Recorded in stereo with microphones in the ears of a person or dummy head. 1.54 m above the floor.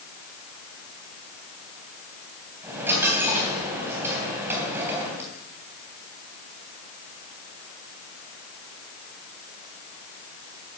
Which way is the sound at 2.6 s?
10° right (ahead or behind).